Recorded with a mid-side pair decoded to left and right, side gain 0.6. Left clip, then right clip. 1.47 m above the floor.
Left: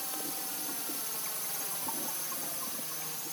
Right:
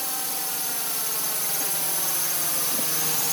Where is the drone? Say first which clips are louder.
Right 8 dB; 45° right; by 3.3 s 75° right.